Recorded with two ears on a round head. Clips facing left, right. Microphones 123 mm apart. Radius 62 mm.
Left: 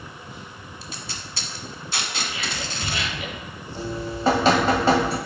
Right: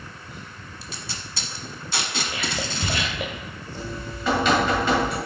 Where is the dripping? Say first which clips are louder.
Left 6 dB; 35° left (ahead or behind), 1.7 m.